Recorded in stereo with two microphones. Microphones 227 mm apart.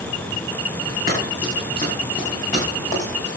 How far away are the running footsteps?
About 7.5 m.